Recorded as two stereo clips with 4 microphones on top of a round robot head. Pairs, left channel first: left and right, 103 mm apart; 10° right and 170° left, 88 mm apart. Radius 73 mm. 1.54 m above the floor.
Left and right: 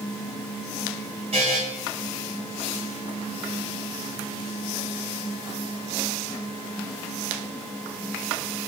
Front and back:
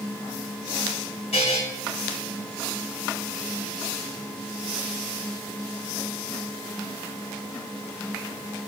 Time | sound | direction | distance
1.3 | a buzzer | 40° right | 2.5 m